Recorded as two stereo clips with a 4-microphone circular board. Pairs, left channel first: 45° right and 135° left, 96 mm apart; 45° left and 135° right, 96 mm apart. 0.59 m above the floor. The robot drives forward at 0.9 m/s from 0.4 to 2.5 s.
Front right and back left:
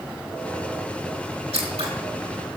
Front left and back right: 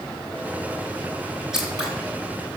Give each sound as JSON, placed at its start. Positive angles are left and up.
{"t": 1.5, "sound": "scissors", "azimuth_deg": 140, "distance_m": 4.0}